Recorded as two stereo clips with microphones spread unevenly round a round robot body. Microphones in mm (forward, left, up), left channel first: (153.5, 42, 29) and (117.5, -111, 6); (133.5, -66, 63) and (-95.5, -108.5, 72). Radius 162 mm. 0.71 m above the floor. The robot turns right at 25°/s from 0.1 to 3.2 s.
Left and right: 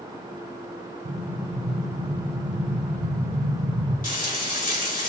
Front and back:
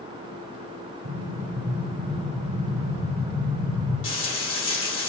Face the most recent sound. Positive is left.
turn(degrees=40)